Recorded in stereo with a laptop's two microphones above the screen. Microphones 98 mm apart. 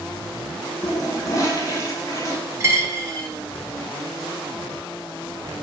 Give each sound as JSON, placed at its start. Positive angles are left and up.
{"t": 0.8, "sound": "a toilet flushing", "side_deg": 35, "distance_m": 0.8}
{"t": 2.6, "sound": "a dropped coin", "side_deg": -30, "distance_m": 1.6}